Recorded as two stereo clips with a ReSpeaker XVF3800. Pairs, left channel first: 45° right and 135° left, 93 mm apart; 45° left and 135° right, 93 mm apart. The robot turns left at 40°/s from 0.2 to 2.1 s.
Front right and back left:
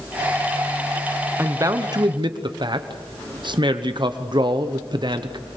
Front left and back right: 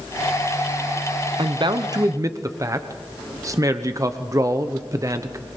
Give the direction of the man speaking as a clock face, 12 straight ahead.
5 o'clock.